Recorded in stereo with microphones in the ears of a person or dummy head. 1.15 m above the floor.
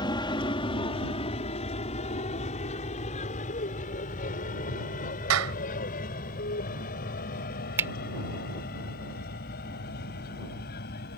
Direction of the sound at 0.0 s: 20° left (ahead or behind).